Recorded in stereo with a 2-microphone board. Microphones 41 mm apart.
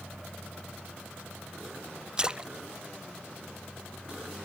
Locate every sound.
2.2 s a splash: 15° right (ahead or behind), 0.5 m